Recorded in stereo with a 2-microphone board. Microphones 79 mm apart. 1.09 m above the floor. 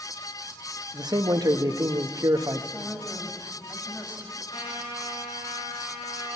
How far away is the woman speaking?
About 5 m.